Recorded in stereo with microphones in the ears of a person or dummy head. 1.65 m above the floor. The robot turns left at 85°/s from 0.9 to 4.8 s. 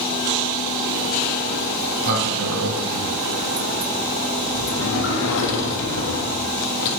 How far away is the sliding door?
About 1.2 m.